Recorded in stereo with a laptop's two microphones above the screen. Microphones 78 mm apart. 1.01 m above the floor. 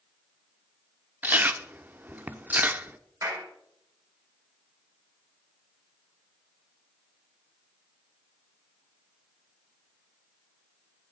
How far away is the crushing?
No crushing in this recording.